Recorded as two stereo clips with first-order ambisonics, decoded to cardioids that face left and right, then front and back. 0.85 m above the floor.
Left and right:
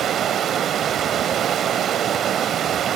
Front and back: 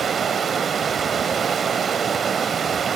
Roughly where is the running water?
Behind right.